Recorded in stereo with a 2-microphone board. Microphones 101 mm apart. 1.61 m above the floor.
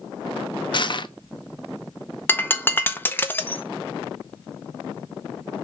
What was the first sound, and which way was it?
Crushing, 50° left (ahead or behind).